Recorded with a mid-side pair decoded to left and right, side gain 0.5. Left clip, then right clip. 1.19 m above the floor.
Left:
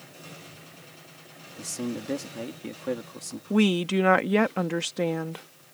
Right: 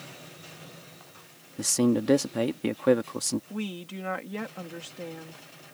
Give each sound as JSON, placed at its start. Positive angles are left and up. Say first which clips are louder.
{"t": 1.6, "sound": "a man speaking", "louder": "right 9 dB", "azimuth_deg": -55}
{"t": 3.5, "sound": "a woman speaking", "louder": "left 13 dB", "azimuth_deg": 65}